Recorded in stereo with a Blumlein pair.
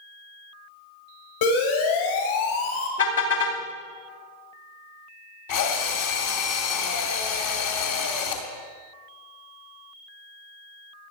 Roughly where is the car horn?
Ahead left.